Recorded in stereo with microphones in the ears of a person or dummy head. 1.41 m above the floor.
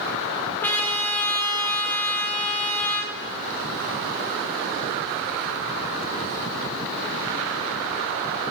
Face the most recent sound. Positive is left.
turn(degrees=10)  # may be behind; listen again after turning